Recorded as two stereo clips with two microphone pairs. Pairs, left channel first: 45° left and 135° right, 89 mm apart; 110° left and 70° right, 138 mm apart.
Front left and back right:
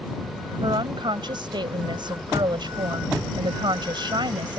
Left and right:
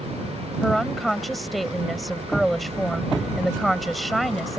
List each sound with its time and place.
0.6 s a woman speaking: 160° right